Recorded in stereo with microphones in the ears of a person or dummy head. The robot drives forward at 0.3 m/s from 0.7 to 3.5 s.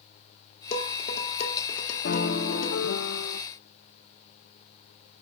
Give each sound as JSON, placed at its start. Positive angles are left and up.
{"t": 0.7, "sound": "dishes clattering", "side_deg": 35, "distance_m": 2.0}
{"t": 2.0, "sound": "a piano", "side_deg": 60, "distance_m": 1.1}